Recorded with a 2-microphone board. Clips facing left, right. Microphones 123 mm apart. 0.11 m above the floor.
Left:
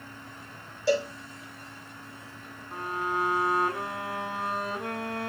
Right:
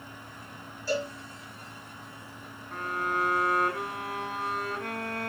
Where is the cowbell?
70° left (ahead or behind), 5 m.